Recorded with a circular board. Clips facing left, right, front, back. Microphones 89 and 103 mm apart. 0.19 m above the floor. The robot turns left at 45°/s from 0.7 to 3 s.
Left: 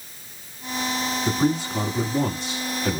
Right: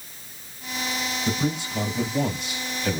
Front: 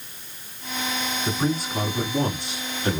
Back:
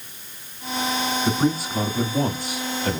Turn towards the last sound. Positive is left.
turn(degrees=30)